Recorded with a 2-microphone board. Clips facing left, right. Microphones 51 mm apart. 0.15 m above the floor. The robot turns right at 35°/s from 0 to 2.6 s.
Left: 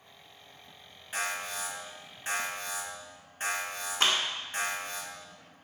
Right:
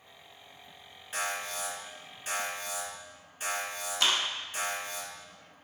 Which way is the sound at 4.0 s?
35° left (ahead or behind).